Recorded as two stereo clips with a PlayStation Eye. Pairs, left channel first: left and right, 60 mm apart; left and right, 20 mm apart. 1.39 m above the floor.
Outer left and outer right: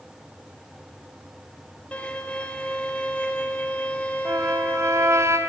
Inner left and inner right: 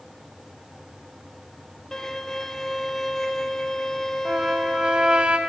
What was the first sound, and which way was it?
A violin, 20° left (ahead or behind).